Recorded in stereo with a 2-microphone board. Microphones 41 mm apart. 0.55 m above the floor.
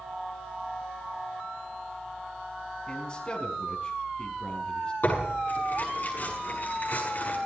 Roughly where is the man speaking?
Left.